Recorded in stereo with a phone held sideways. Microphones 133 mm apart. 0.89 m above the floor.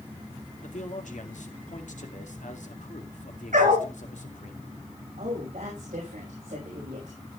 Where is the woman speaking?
85° right, 5.5 m.